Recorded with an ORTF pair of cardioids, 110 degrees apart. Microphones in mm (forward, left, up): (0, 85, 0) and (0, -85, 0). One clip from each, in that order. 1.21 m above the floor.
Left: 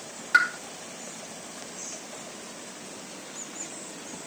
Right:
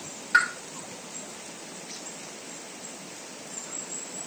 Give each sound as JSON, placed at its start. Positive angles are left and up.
{"t": 0.3, "sound": "a pop", "azimuth_deg": 30, "distance_m": 3.5}